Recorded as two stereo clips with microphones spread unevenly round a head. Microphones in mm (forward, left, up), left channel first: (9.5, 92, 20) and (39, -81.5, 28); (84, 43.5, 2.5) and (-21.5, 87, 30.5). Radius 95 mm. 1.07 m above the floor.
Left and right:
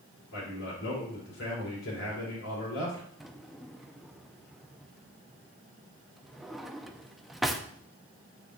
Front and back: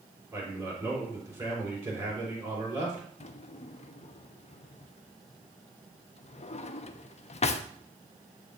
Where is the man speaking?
105° left, 4 m.